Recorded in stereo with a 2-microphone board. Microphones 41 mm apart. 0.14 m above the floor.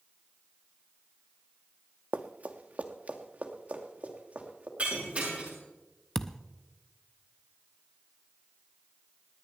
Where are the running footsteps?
40° right (ahead or behind), 0.9 m; by 4.7 s 30° right (ahead or behind), 3 m.